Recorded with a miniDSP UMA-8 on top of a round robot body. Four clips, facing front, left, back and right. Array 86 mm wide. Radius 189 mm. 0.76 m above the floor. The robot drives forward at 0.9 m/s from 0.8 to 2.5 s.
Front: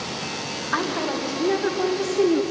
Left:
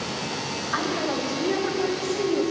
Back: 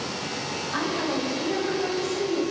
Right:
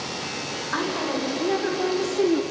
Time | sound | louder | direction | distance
0.7 | a woman speaking | even, front 2 dB | 20° right | 4 m